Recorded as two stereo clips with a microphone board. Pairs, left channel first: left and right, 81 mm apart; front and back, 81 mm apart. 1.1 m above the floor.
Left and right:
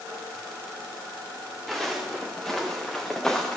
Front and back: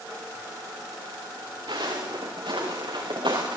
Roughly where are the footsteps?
Behind.